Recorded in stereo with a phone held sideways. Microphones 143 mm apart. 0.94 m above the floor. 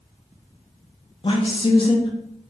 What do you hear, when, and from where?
1.2 s a woman speaking: 40° left (ahead or behind), 0.5 m